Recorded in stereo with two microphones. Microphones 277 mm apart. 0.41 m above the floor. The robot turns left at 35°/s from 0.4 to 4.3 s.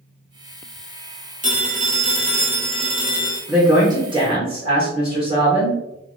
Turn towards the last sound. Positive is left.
turn(degrees=-20)  # may be behind; listen again after turning